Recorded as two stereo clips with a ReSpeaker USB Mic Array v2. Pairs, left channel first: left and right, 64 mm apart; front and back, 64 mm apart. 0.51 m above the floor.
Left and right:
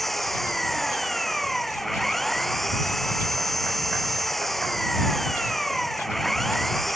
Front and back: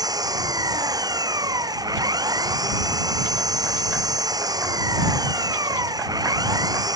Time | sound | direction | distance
0.0 | an engine running | 175° left | ?